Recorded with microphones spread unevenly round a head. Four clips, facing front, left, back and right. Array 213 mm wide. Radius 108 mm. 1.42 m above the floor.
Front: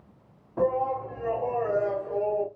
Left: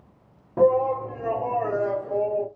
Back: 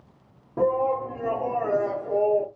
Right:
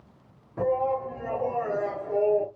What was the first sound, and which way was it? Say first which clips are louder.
A shout: left 6 dB, back 3 dB; 130° left.